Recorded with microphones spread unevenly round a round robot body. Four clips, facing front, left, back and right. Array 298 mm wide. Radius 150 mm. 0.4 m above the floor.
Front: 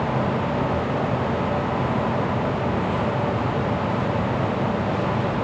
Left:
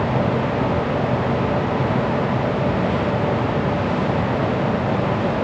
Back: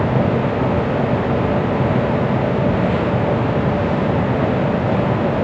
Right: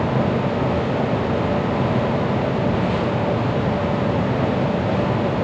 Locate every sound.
Only background noise.